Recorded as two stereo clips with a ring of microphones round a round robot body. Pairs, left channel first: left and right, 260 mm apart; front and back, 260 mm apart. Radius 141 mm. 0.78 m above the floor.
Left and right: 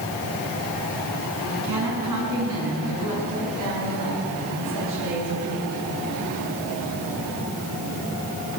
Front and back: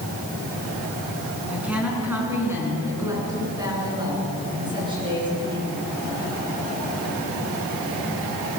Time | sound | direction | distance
1.5 | a woman speaking | 95° right | 8 m